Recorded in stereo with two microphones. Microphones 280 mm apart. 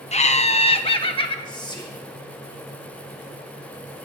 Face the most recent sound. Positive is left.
turn(degrees=15)  # may be behind; listen again after turning